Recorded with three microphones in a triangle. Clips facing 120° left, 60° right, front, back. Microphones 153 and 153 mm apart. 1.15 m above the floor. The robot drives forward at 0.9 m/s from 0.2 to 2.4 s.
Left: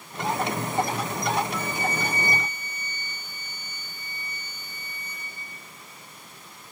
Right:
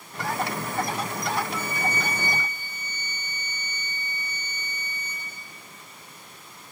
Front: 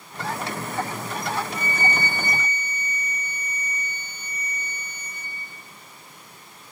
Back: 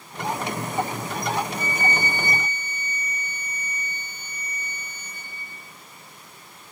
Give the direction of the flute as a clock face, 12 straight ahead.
5 o'clock.